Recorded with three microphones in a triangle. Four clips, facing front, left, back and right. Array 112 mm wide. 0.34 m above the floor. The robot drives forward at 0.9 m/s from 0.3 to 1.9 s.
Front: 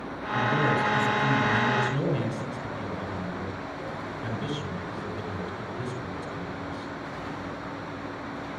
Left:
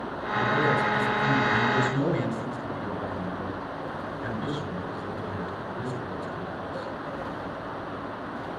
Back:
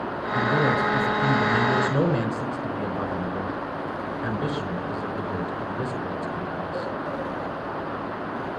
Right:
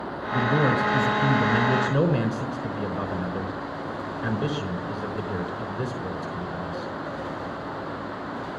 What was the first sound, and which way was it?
A man speaking, 110° right.